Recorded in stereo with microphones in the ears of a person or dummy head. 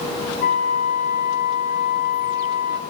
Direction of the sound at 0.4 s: 45° left (ahead or behind).